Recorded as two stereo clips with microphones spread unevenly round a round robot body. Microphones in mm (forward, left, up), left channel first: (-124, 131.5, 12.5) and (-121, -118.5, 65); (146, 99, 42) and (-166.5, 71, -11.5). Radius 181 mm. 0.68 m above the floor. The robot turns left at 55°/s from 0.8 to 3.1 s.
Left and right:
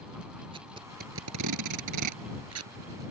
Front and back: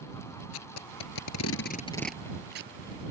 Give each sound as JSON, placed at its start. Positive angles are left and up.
{"t": 0.5, "sound": "tape being pulled", "azimuth_deg": -15}